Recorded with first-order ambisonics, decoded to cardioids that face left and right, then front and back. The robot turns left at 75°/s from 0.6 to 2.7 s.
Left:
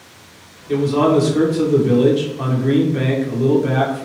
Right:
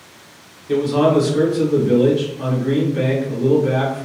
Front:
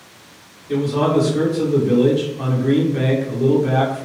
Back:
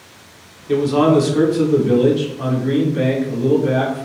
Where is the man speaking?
160° right, 0.9 m; by 4.0 s 50° left, 0.9 m.